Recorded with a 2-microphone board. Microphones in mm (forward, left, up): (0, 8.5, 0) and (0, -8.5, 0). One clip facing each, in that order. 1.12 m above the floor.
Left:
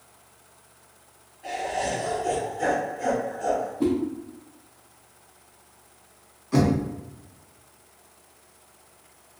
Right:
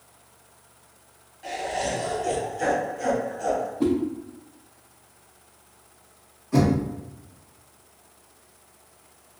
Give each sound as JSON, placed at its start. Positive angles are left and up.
{"t": 1.4, "sound": "laughter", "side_deg": -40, "distance_m": 1.0}
{"t": 3.8, "sound": "a whoosh", "side_deg": -10, "distance_m": 0.5}
{"t": 6.5, "sound": "knocking", "side_deg": 35, "distance_m": 1.5}